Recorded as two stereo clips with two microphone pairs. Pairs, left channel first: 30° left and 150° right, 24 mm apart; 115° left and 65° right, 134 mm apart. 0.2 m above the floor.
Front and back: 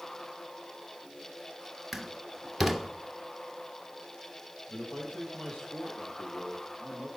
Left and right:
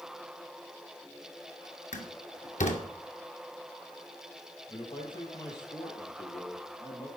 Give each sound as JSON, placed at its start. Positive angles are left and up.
{"t": 1.9, "sound": "a door slam", "azimuth_deg": 115, "distance_m": 2.5}
{"t": 4.7, "sound": "a man speaking", "azimuth_deg": 60, "distance_m": 6.0}